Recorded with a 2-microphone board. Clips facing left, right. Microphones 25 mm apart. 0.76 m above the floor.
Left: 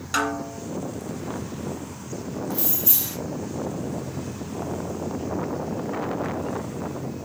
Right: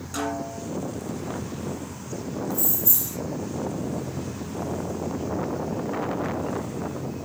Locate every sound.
0.1 s a snare drum: 65° left (ahead or behind), 2.5 m
2.5 s keys jangling: 60° left (ahead or behind), 0.7 m